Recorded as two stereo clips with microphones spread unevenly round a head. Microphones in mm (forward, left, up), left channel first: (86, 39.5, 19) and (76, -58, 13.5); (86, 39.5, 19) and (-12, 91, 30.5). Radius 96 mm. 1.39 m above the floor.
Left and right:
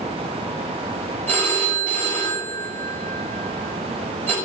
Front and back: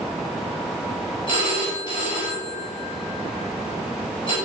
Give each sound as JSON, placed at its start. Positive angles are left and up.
{"t": 1.3, "sound": "a phone ringing", "azimuth_deg": 15, "distance_m": 6.0}